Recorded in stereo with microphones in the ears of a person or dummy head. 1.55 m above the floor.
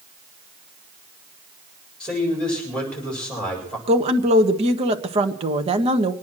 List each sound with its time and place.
2.0 s a man speaking: 5° left (ahead or behind), 7.5 m
3.9 s a woman speaking: 30° right (ahead or behind), 1.5 m